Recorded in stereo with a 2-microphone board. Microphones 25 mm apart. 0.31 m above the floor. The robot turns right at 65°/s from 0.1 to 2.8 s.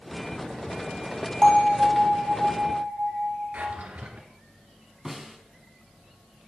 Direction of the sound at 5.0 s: 15° right (ahead or behind).